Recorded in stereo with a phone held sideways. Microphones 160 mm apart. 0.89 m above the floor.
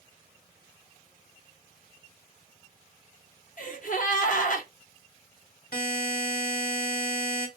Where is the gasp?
55° left (ahead or behind), 1.0 m.